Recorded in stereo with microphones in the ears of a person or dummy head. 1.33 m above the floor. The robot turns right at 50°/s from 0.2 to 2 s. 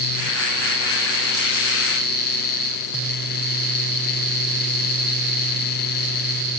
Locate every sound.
Only background noise.